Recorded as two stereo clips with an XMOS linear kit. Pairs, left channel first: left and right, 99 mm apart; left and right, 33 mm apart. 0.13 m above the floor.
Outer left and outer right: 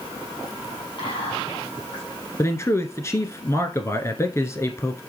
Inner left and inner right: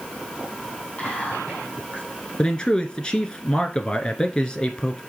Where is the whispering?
45° left (ahead or behind), 3.5 m.